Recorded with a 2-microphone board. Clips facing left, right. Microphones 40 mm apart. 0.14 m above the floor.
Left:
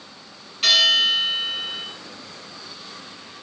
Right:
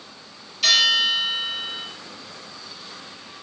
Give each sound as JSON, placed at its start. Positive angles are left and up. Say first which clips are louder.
{"t": 0.6, "sound": "a bell", "louder": "left 1 dB", "side_deg": 25, "distance_m": 1.7}